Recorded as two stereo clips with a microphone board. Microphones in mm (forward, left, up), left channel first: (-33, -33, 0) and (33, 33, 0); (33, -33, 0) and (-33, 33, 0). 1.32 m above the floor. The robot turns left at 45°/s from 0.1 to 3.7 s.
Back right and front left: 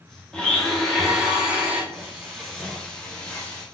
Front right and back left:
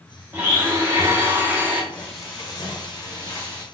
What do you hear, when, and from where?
0.3 s a blender: 160° left, 0.8 m; by 1.8 s 90° left, 0.8 m
1.9 s frying: 15° right, 1.3 m; by 3.6 s 90° right, 1.3 m